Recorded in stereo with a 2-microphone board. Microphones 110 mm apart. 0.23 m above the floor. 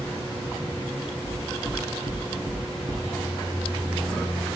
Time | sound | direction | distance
1.2 | knocking | 25° left (ahead or behind) | 1.9 m